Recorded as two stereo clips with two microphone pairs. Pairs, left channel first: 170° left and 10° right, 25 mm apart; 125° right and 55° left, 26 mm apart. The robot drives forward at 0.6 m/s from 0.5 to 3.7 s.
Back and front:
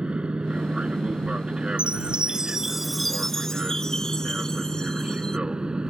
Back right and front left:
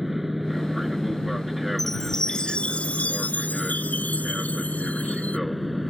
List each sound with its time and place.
0.0 s an aircraft: 35° right; by 5.9 s 40° right
1.8 s a chime: 50° right; by 5.4 s 135° right